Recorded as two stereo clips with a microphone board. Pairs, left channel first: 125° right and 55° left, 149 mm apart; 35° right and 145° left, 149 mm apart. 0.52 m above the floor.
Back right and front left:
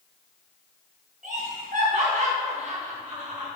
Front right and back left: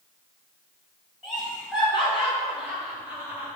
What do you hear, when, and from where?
1.2 s laughter: 55° left, 3.5 m; by 3.5 s 75° left, 2.5 m